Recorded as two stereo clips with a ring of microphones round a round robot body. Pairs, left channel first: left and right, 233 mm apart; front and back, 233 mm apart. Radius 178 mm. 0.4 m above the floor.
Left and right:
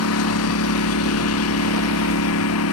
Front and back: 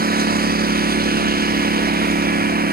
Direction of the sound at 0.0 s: 130° left.